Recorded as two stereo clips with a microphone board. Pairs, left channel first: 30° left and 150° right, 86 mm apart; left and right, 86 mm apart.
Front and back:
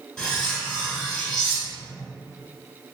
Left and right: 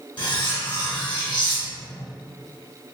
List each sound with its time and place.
0.2 s cutlery clinking: 110° left, 1.1 m